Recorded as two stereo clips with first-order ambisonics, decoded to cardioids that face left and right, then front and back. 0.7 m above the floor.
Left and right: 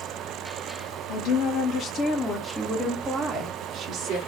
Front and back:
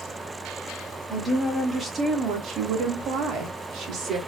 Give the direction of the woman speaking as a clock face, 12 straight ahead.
9 o'clock.